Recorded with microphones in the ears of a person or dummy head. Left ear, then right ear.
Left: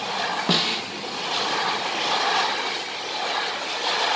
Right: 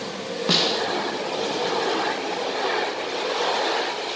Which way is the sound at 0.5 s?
10° right (ahead or behind).